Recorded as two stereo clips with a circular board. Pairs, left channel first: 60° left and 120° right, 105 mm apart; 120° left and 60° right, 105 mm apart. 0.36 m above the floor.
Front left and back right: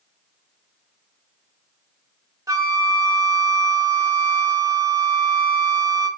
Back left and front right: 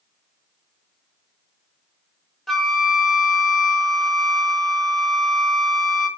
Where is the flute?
155° right, 0.6 m.